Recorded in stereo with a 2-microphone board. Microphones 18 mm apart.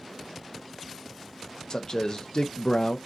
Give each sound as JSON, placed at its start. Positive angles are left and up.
{"t": 1.7, "sound": "a man speaking", "side_deg": 45, "distance_m": 0.6}